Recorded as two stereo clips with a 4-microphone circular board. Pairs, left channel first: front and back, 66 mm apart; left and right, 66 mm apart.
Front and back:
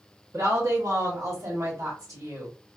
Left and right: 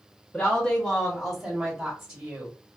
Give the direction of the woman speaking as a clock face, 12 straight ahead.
7 o'clock.